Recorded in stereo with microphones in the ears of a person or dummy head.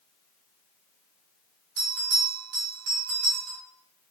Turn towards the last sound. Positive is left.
turn(degrees=-50)  # may be behind; listen again after turning